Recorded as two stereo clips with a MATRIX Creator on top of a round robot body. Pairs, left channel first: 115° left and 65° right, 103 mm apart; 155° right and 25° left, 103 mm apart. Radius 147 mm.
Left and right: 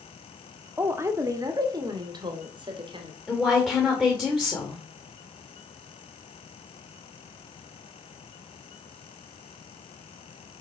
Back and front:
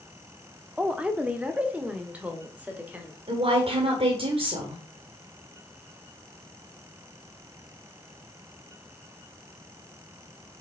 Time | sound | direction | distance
0.8 | a woman speaking | 40° right | 1.3 m
3.3 | a woman speaking | 30° left | 2 m